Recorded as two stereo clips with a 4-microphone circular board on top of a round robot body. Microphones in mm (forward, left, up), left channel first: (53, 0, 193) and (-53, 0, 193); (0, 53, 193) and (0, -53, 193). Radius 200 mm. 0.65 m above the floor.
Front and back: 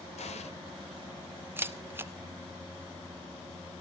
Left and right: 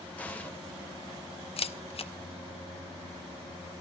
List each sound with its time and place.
0.2 s an explosion: 15° left, 2.0 m
1.6 s a camera shutter: 110° left, 1.1 m